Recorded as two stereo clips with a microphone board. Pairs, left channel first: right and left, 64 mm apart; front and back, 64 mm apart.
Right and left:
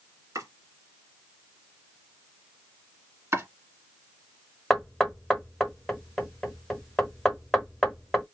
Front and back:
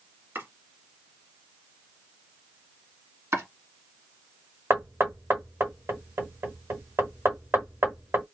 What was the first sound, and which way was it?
Chopping, 130° left.